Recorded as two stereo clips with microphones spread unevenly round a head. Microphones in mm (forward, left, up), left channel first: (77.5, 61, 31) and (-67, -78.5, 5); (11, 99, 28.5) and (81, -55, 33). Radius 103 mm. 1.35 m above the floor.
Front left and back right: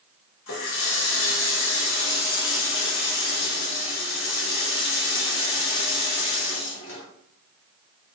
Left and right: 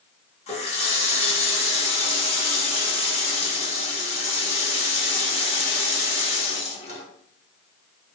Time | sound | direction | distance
0.5 | a running tap | 65° left | 1.5 m